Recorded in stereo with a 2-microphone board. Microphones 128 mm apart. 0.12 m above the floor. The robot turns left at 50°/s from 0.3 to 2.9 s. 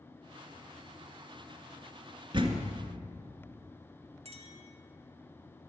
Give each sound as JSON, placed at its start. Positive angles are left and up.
{"t": 2.3, "sound": "a door slam", "side_deg": -40, "distance_m": 1.5}
{"t": 4.2, "sound": "a clink", "side_deg": -55, "distance_m": 2.0}